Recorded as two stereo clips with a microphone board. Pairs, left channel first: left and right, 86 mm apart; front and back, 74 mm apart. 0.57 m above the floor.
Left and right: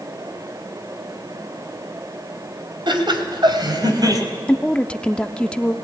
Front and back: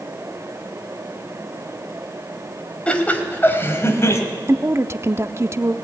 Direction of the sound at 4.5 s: 160° left.